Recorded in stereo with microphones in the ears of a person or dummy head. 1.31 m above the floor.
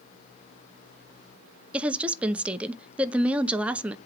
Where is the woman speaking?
15° right (ahead or behind), 0.5 m.